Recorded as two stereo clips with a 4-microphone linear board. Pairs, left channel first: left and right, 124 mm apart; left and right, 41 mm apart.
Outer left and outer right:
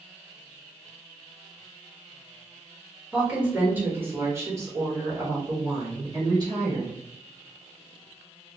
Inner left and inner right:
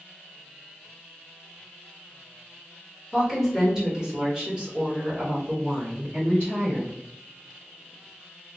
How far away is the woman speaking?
About 1.5 m.